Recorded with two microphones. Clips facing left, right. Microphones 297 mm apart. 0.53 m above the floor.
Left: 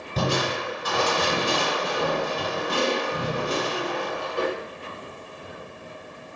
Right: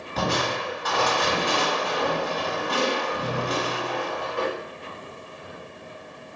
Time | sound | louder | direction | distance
0.2 | crushing | left 1 dB | 40° left (ahead or behind) | 1.1 m